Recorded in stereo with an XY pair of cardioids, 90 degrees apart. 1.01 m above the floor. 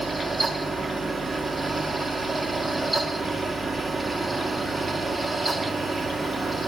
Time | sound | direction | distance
0.0 | a fan | 20° right | 1.5 m